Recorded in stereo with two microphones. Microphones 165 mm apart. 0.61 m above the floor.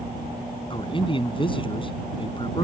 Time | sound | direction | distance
0.7 | a man speaking | 30° left (ahead or behind) | ?